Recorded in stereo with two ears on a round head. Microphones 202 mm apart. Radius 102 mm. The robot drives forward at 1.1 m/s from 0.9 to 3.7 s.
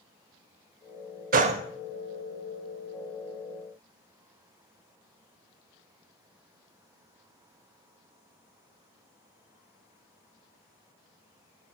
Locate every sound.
1.3 s a gunshot: 40° right (ahead or behind), 0.6 m; by 1.6 s 25° right (ahead or behind), 0.8 m